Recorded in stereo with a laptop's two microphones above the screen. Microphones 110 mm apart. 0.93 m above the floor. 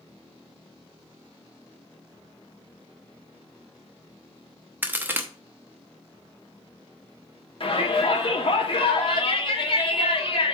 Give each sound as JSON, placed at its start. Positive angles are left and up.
{"t": 4.8, "sound": "a crack", "side_deg": -15, "distance_m": 0.8}
{"t": 7.6, "sound": "a shout", "side_deg": 50, "distance_m": 2.5}